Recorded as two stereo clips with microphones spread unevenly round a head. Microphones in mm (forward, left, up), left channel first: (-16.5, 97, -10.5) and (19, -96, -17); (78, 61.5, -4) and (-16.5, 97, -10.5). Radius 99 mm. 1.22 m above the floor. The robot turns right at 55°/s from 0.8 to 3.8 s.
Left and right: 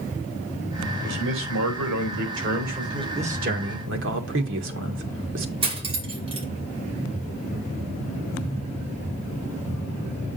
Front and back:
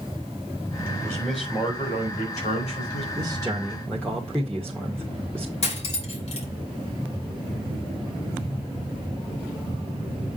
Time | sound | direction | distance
1.0 | a man speaking | 125° right | 4 m
3.1 | a man speaking | 140° right | 1.7 m
5.6 | cutlery clinking | 15° right | 2.5 m